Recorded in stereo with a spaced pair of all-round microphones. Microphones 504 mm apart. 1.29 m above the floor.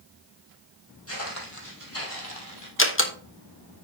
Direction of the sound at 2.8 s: 25° left (ahead or behind).